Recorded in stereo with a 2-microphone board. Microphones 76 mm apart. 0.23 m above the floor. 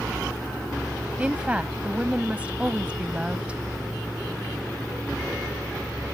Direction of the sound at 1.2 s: 15° right (ahead or behind).